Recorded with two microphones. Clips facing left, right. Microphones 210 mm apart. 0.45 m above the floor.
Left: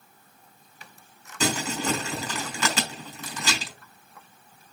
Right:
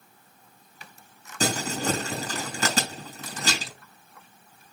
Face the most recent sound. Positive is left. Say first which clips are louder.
# even
turn(degrees=-40)  # may be behind; listen again after turning